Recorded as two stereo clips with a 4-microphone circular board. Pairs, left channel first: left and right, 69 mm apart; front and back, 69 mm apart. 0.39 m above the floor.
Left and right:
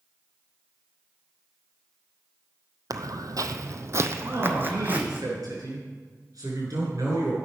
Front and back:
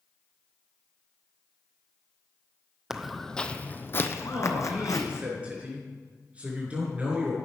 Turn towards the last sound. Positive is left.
turn(degrees=-110)